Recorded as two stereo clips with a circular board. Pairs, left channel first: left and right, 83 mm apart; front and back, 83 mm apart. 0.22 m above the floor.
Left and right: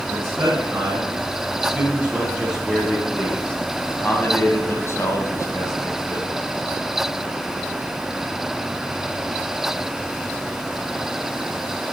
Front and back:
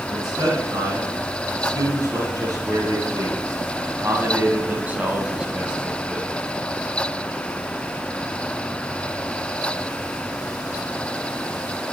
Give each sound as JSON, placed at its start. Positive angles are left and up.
{"t": 0.1, "sound": "a man speaking", "azimuth_deg": -140, "distance_m": 2.5}